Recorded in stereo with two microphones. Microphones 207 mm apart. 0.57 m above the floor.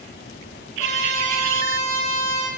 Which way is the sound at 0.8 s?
35° left (ahead or behind).